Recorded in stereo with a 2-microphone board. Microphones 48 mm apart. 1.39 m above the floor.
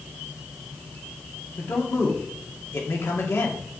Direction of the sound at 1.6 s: 65° left (ahead or behind).